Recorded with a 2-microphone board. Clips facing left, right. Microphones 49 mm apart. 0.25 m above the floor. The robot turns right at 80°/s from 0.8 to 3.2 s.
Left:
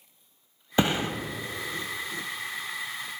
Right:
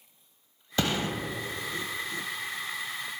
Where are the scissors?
No scissors in this recording.